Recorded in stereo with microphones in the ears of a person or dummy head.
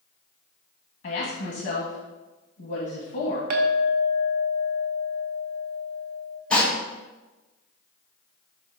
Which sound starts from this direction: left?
A woman speaking, at 1.0 s.